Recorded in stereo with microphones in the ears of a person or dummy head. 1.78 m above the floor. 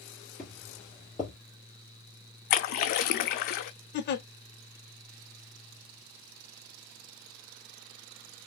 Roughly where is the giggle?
Left.